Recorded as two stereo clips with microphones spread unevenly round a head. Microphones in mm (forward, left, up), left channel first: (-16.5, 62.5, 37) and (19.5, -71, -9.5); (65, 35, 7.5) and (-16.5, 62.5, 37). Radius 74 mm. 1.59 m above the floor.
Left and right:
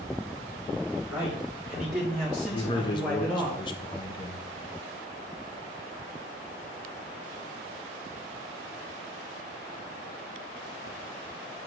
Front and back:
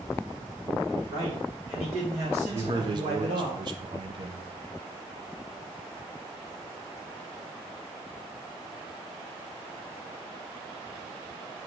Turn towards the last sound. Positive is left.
turn(degrees=150)